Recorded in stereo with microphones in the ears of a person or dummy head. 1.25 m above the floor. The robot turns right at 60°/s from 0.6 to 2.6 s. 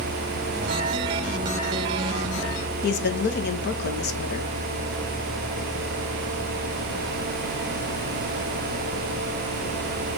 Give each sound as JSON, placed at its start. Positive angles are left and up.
{"t": 2.8, "sound": "a woman speaking", "side_deg": 55, "distance_m": 1.2}